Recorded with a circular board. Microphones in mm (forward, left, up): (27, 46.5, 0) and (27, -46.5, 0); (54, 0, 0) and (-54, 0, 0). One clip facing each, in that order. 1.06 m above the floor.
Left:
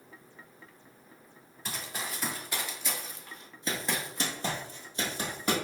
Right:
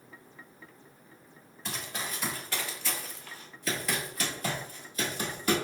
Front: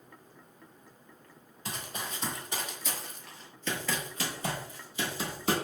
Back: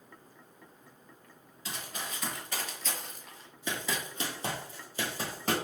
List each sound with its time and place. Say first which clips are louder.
1.6 s running footsteps: right 1 dB, front 2 dB; 10° left, 1.3 m; by 5.5 s 145° left, 1.8 m